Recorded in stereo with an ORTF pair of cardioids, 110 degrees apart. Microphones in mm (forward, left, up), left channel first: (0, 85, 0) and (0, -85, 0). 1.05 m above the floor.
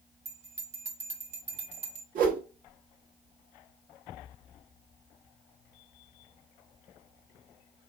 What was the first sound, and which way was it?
A bell, 40° right.